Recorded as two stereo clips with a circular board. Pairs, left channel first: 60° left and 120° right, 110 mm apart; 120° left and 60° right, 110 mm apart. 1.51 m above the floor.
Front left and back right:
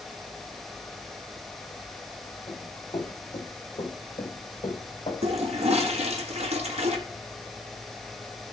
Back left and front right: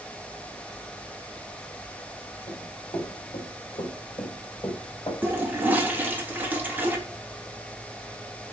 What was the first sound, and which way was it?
Running footsteps, 105° left.